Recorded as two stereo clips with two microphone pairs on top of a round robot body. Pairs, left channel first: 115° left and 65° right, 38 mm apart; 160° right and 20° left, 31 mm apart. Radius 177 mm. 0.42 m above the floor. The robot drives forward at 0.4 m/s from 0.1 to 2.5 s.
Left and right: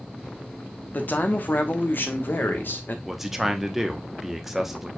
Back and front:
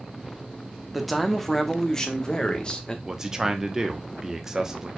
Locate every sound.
0.9 s a man speaking: 90° left, 1.1 m; by 3.0 s 130° left, 1.3 m
3.0 s a man speaking: 5° right, 1.0 m